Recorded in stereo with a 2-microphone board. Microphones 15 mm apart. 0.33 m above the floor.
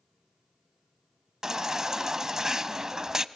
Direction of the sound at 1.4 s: 30° right (ahead or behind).